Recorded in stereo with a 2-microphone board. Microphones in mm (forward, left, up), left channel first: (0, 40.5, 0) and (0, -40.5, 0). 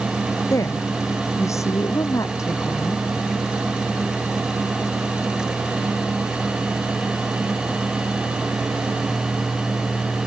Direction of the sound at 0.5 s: 40° left (ahead or behind).